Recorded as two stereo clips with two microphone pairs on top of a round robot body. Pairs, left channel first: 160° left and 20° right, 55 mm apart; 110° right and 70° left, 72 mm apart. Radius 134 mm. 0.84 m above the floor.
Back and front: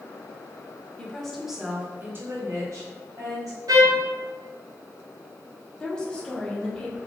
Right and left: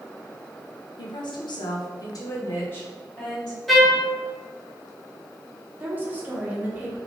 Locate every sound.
1.0 s a woman speaking: 130° right, 0.8 m; by 3.6 s 30° right, 1.3 m
3.7 s a trumpet: 20° right, 0.5 m
5.8 s a woman speaking: 105° left, 1.0 m